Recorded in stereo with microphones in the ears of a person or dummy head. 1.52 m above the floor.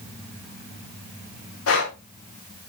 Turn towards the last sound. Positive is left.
turn(degrees=80)